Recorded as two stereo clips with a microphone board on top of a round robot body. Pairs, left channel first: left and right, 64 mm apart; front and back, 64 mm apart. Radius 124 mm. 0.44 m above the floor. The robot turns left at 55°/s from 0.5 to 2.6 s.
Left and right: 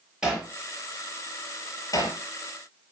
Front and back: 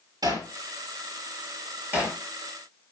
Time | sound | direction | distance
0.2 | hammering | 170° right | 6.5 m